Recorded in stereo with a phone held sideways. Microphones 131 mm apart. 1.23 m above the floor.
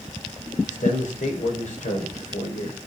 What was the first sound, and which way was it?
A man speaking, 70° left (ahead or behind).